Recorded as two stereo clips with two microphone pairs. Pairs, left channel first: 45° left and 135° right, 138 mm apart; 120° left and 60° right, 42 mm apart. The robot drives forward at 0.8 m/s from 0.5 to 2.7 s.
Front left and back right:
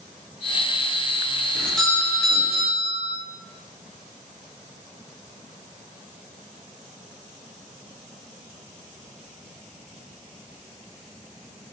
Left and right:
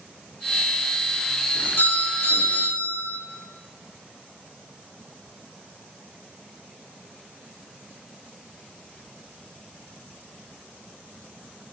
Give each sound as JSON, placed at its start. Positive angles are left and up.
{"t": 1.6, "sound": "a doorbell", "azimuth_deg": 130, "distance_m": 4.5}